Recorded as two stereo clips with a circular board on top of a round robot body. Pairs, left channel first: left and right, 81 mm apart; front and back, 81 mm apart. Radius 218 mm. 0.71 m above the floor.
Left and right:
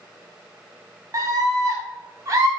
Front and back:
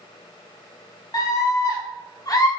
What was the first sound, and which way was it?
A scream, 40° right.